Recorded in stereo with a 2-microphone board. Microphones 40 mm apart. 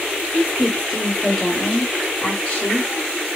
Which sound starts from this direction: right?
A woman speaking, at 0.3 s.